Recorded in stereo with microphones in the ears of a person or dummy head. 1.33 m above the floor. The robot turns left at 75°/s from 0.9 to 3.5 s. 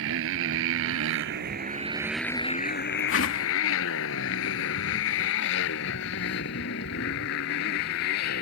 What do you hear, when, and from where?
0.0 s a motorcycle: 75° right (ahead or behind); by 8.4 s 55° left (ahead or behind)
3.1 s a whoosh: 115° left; by 3.5 s 80° left